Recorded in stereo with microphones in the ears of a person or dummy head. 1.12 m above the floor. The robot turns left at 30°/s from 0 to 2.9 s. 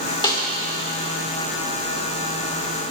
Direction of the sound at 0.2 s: 20° left (ahead or behind).